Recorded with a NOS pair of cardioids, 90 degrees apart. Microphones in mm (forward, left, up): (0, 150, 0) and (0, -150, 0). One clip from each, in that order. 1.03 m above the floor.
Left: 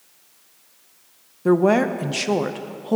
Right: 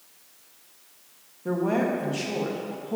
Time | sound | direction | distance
1.4 | a woman speaking | 60° left | 0.8 m